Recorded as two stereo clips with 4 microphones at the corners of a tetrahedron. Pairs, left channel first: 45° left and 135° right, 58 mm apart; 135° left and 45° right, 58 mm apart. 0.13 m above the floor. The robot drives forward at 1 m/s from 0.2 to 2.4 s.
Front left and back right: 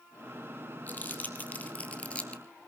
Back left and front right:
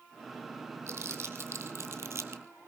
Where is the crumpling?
10° right, 3 m; by 2.4 s 20° right, 1.6 m.